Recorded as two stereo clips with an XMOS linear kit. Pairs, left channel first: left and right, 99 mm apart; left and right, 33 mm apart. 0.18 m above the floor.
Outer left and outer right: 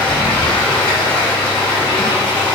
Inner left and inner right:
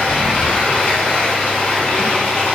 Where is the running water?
60° left (ahead or behind), 1.6 m.